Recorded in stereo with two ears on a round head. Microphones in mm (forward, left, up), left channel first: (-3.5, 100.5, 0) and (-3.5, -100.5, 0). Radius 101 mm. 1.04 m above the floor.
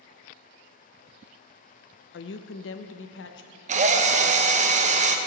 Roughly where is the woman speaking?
Left.